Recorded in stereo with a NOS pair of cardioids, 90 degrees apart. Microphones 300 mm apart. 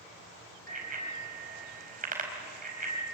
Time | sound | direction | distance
0.7 | a bicycle bell | 30° right | 4.5 m